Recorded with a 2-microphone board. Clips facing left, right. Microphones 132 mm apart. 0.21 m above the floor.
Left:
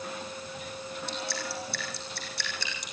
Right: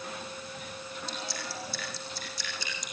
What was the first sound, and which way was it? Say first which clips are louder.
Dripping: left 4 dB; 75° left (ahead or behind).